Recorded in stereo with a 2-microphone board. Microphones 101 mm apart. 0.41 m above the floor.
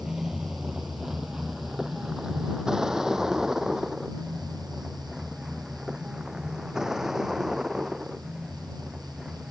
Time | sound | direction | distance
0.0 | a vehicle | 5° right (ahead or behind) | ?